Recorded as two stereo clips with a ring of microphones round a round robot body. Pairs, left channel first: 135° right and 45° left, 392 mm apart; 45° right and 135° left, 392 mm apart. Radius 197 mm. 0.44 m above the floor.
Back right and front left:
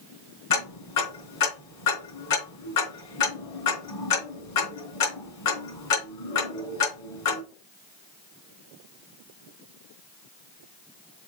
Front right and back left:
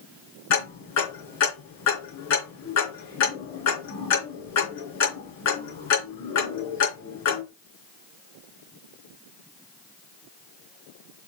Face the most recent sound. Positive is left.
turn(degrees=-95)